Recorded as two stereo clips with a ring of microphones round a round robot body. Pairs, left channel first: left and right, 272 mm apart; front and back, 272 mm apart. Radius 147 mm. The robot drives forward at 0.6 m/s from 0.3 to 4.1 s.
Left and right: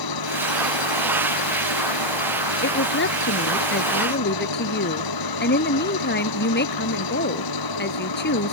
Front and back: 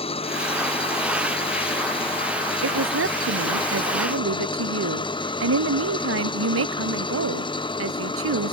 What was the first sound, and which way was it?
An engine running, 70° left.